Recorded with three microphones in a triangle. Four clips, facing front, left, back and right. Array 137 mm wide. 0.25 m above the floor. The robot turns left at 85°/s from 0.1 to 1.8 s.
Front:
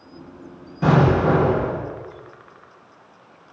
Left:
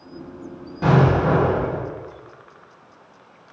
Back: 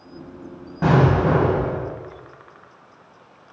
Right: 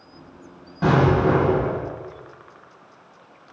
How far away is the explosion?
About 1.1 m.